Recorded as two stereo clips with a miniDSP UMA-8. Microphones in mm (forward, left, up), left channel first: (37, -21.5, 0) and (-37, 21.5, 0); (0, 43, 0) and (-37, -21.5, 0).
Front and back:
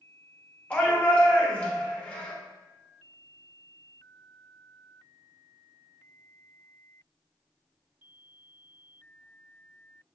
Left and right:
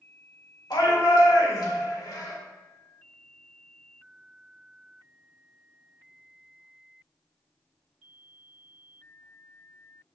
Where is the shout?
45° left, 1.1 m.